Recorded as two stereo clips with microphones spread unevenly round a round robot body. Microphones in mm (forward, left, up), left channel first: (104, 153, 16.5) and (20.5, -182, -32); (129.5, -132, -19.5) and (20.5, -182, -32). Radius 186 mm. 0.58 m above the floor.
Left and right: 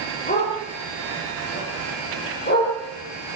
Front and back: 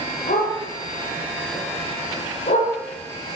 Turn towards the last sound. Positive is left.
turn(degrees=15)